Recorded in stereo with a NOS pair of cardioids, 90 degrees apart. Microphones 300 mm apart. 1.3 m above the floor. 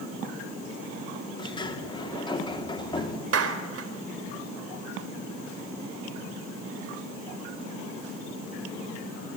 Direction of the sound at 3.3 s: 50° right.